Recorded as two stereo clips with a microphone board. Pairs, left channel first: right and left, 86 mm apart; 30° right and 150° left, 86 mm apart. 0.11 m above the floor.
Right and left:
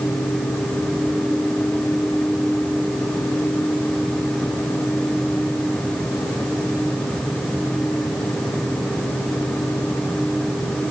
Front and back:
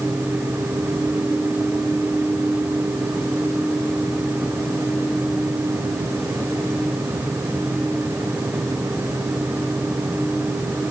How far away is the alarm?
I don't hear an alarm.